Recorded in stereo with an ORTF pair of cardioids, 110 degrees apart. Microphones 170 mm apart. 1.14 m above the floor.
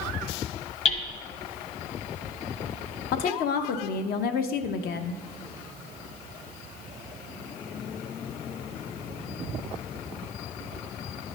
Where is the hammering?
40° left, 1.1 m.